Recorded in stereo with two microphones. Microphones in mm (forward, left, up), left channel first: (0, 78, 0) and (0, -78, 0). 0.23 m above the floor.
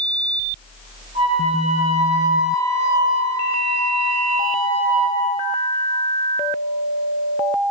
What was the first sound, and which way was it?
A flute, 40° right (ahead or behind).